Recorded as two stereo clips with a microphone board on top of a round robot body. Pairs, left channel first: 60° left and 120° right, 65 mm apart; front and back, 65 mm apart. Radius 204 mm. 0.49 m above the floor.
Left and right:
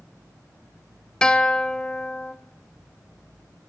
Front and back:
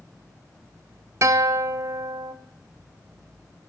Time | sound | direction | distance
1.2 | a guitar | 135° left | 0.8 m